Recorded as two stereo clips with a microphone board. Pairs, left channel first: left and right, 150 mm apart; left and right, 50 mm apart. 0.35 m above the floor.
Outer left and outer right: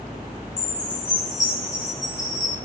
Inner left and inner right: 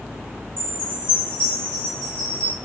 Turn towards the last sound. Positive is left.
turn(degrees=25)  # may be behind; listen again after turning